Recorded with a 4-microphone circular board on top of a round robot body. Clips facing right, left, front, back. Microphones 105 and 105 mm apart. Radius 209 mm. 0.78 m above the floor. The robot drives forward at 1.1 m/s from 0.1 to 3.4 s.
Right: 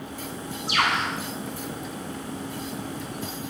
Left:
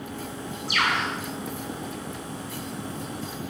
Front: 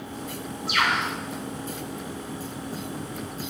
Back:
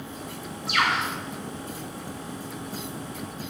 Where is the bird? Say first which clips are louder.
Right 1 dB, even; 90° right, 6.5 m; by 1.1 s 95° right, 6.5 m.